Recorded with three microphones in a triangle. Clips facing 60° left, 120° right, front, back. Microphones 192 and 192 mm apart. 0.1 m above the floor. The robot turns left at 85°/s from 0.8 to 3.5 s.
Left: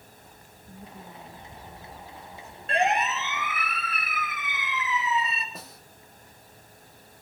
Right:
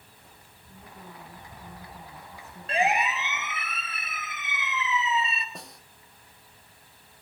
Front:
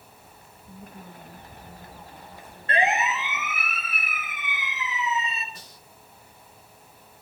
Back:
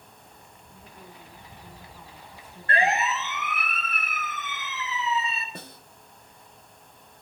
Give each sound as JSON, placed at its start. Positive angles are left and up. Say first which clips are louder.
{"t": 0.7, "sound": "a woman speaking", "louder": "left 2 dB, front 5 dB", "azimuth_deg": 25, "distance_m": 9.5}
{"t": 2.7, "sound": "a siren", "louder": "left 1 dB, front 1 dB", "azimuth_deg": -30, "distance_m": 2.0}
{"t": 5.5, "sound": "a snare drum", "louder": "even, back 7 dB", "azimuth_deg": 150, "distance_m": 1.1}